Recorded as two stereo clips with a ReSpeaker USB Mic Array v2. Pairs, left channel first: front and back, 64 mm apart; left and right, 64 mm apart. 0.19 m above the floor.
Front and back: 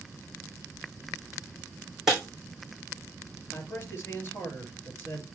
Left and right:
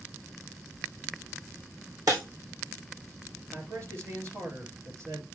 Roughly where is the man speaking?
Ahead right.